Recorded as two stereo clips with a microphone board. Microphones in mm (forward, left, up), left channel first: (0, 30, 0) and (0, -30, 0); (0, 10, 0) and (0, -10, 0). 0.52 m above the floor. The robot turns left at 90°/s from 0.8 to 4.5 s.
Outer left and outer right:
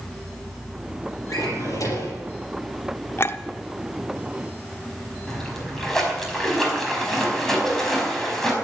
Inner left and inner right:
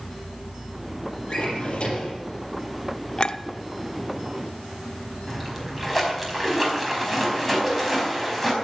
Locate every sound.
1.3 s a drawer: 120° left, 5.5 m; by 2.2 s 40° left, 5.5 m
3.2 s a clink: 45° left (ahead or behind), 0.7 m; by 3.4 s 40° left (ahead or behind), 0.7 m
5.3 s a splash: 5° left (ahead or behind), 4.5 m